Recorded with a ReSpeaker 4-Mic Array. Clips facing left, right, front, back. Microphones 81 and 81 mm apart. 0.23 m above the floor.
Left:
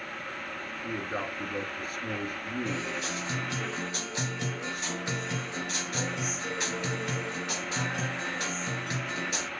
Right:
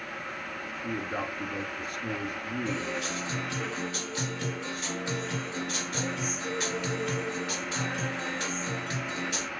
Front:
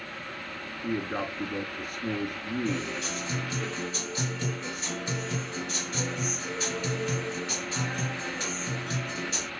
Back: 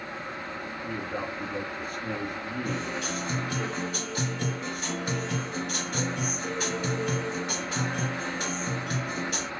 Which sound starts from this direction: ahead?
A man speaking, at 0.8 s.